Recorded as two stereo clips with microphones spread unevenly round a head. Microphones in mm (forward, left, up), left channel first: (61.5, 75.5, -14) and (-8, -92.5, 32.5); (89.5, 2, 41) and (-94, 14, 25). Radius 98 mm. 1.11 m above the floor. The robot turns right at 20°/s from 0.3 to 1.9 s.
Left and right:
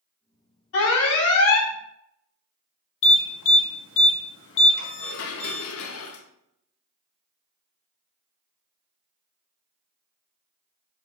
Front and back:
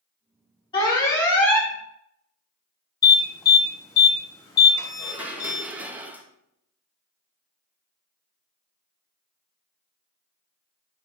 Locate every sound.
0.7 s an alarm: 65° left, 2 m; by 1.7 s 80° left, 2 m
3.0 s an alarm: 70° left, 2 m
5.0 s dishes clattering: 90° left, 0.7 m